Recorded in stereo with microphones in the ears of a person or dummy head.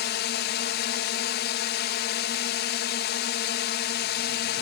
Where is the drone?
55° left (ahead or behind).